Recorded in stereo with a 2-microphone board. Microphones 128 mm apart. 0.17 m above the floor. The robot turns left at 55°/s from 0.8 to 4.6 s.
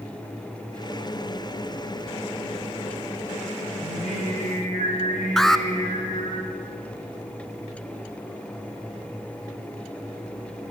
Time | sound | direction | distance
3.8 | singing | 135° left | 6.5 m
5.4 | an alarm | centre (ahead or behind) | 1.2 m